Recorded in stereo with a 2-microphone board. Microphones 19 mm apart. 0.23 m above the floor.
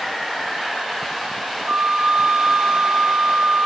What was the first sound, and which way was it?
A flute, 65° right (ahead or behind).